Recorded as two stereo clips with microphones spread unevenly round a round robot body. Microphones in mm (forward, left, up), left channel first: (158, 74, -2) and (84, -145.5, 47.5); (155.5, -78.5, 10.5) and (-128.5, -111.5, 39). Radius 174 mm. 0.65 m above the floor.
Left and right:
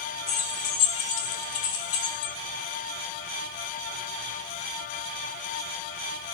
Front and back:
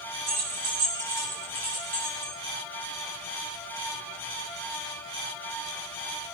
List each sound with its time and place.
0.3 s keys jangling: 140° left, 1.3 m; by 2.3 s 100° left, 1.7 m